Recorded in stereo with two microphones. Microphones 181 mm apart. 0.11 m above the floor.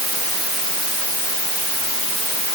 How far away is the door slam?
No door slam in this recording.